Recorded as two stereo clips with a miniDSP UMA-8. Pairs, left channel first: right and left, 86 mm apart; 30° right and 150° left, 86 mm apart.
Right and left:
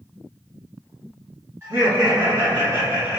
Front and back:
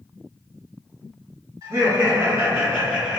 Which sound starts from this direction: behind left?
Laughter, at 1.6 s.